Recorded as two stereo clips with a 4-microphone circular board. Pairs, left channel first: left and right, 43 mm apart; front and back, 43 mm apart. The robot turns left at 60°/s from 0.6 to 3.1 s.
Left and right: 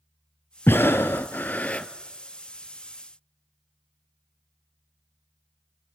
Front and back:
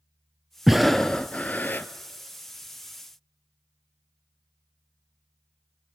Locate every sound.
0.7 s breathing: 100° left, 0.6 m; by 1.9 s 25° left, 0.6 m